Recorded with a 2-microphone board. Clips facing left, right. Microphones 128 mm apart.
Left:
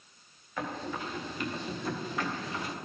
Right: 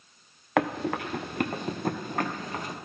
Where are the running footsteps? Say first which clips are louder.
Right 9 dB; 80° right, 0.7 m; by 2.8 s 45° right (ahead or behind), 1.7 m.